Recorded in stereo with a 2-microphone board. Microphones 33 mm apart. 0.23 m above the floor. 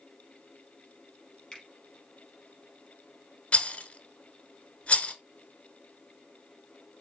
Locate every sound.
1.5 s a finger snap: 20° left (ahead or behind), 3.5 m
3.5 s a rattle: 40° left (ahead or behind), 0.7 m